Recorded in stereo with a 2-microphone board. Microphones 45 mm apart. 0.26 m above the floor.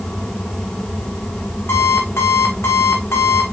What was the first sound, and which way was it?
An alarm clock, 75° left (ahead or behind).